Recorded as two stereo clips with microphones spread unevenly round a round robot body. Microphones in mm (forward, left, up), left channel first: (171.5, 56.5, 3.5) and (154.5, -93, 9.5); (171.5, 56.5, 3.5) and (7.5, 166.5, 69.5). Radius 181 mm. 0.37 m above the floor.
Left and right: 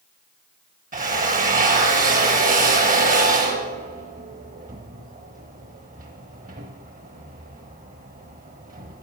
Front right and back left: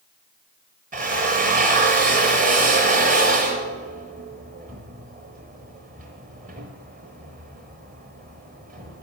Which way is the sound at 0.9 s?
145° right.